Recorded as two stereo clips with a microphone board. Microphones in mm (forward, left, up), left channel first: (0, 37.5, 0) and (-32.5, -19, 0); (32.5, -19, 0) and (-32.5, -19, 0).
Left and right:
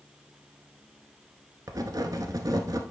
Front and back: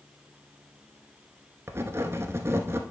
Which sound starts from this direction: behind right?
Writing, at 1.7 s.